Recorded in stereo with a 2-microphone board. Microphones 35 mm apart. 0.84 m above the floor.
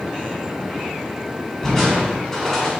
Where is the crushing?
20° left (ahead or behind), 3 m.